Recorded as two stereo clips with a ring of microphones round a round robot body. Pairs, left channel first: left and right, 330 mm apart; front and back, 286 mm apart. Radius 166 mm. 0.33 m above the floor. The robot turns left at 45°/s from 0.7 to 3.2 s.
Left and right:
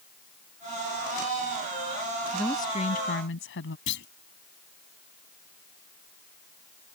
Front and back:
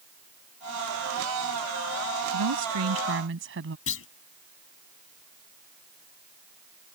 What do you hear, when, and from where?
2.3 s a woman speaking: straight behind; by 3.8 s 140° left
3.9 s a clunk: 35° left